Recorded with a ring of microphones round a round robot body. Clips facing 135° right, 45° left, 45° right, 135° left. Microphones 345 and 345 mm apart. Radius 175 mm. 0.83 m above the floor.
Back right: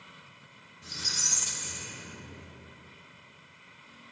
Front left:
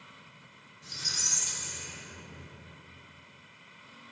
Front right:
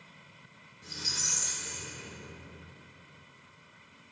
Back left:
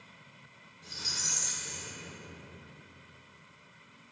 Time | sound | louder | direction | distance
0.8 | a squeak | back right 3 dB, front right 3 dB | 115° right | 0.7 m